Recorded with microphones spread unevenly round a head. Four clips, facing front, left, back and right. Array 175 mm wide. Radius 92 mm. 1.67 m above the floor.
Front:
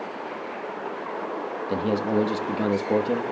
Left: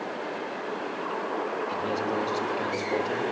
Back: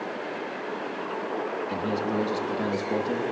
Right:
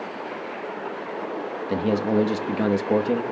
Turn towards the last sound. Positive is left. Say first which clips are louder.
# right 11 dB, front 6 dB
turn(degrees=-45)